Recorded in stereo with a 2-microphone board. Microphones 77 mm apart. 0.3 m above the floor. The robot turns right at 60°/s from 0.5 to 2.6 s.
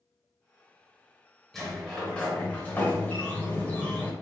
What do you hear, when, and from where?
1.5 s a sliding door: 5° left (ahead or behind), 1.0 m; by 4.1 s 20° left (ahead or behind), 1.0 m